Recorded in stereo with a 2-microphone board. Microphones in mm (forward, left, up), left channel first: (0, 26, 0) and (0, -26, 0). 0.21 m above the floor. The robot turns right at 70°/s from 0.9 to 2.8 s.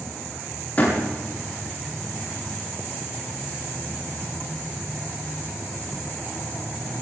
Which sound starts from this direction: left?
A door slam, at 0.8 s.